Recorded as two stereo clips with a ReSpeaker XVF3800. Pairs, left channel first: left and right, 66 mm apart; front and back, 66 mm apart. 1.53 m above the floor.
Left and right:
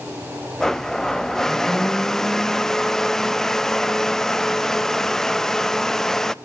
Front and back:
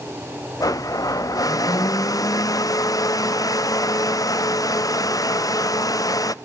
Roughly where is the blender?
Ahead.